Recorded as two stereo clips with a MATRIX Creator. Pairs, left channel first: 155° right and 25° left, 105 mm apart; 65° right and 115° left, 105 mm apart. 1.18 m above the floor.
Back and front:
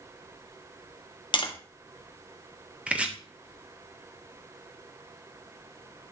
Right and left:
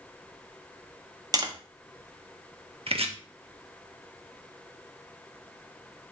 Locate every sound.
1.3 s tapping: 165° left, 1.3 m
2.9 s chopping: 100° left, 1.6 m